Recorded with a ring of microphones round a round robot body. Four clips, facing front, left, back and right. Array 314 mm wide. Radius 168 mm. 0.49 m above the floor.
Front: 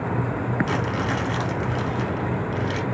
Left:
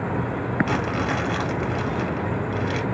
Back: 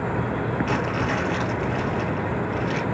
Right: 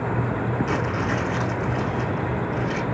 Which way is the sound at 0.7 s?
80° left.